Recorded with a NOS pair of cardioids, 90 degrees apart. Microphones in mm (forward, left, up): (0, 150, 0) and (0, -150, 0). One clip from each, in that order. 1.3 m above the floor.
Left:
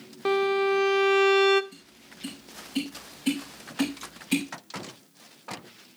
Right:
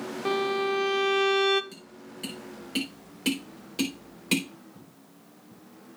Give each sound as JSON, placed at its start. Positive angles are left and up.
{"t": 0.2, "sound": "a violin", "azimuth_deg": 10, "distance_m": 0.5}
{"t": 1.7, "sound": "tapping", "azimuth_deg": -70, "distance_m": 4.0}